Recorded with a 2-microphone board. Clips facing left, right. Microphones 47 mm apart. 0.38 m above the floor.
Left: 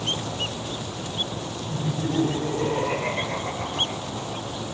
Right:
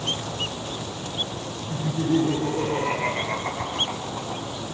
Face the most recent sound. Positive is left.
turn(degrees=-60)  # may be behind; listen again after turning